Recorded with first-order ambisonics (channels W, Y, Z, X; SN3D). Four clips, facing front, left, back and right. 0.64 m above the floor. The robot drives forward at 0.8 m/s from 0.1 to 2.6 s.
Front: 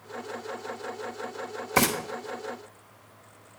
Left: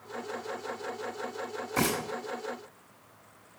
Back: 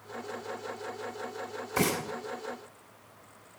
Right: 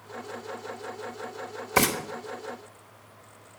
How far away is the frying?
About 2 m.